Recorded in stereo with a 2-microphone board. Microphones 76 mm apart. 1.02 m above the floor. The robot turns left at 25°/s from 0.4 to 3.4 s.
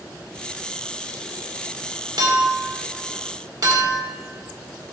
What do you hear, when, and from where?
2.2 s a clink: 85° right, 2.0 m; by 4.0 s 60° right (ahead or behind), 2.0 m